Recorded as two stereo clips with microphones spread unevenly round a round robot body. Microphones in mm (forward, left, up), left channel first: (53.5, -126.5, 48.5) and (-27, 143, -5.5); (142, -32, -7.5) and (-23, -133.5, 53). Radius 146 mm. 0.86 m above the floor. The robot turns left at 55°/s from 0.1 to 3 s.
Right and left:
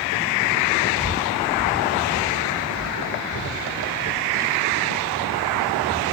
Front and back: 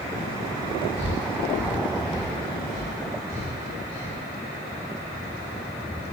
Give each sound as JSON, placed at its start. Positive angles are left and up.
{"t": 1.0, "sound": "breathing", "azimuth_deg": 65, "distance_m": 4.0}